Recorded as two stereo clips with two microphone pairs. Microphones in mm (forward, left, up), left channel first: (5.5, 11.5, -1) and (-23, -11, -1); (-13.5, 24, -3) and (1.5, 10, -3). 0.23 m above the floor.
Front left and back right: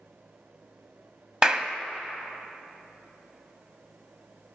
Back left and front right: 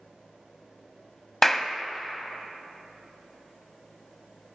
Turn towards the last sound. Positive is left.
turn(degrees=-175)